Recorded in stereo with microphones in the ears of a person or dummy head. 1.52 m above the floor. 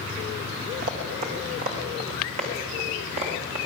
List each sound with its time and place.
0.8 s running footsteps: 40° right (ahead or behind), 4.5 m; by 3.7 s 45° right (ahead or behind), 8 m